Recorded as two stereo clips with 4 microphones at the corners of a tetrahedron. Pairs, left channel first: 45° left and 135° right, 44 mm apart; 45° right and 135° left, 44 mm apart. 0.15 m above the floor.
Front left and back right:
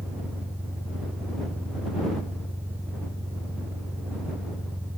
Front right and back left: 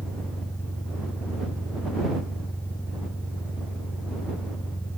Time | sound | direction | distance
0.0 | an engine running | 100° right | ?